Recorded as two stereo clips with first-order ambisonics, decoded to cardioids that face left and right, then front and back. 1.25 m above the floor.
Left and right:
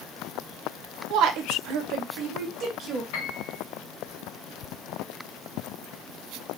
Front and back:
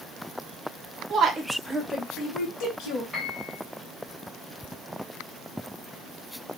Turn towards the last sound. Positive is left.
turn(degrees=90)